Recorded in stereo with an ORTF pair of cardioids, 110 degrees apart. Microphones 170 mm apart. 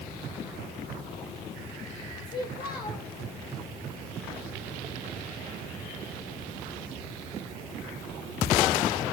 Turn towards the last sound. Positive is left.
turn(degrees=60)